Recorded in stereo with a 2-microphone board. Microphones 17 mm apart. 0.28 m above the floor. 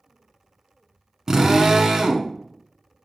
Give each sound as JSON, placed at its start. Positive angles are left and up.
{"t": 1.3, "sound": "a drill", "side_deg": -30, "distance_m": 1.1}